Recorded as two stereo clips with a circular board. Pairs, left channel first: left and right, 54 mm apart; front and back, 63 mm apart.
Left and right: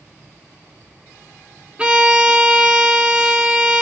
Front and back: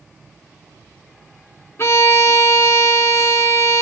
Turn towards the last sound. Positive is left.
turn(degrees=-25)